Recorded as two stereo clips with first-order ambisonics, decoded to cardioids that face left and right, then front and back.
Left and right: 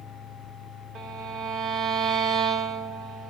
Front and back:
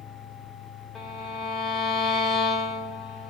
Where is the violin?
75° right, 1.0 m.